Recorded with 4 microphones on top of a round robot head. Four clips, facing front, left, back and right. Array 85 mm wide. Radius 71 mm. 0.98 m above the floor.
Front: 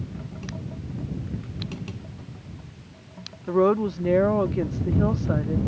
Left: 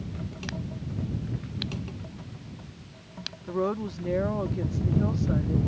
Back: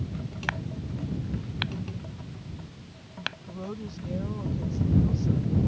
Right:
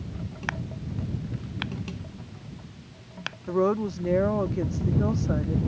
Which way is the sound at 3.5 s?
15° right.